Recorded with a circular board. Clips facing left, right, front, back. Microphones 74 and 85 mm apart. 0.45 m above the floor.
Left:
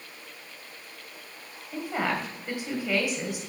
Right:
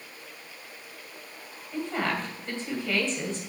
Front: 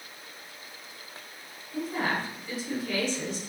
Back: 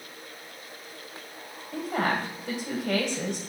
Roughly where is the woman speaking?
Behind.